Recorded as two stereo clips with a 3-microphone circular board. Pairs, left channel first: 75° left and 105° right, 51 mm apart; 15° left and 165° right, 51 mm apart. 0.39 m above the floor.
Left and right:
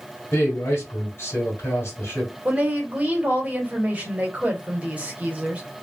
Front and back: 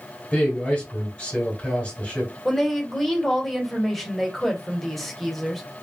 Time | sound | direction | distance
0.3 | a man speaking | 65° left | 1.6 m
2.5 | a woman speaking | 70° right | 1.0 m